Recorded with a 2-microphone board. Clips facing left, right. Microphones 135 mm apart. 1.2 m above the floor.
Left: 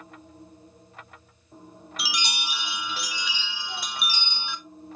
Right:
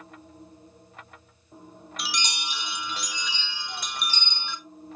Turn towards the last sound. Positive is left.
turn(degrees=5)  # may be behind; listen again after turning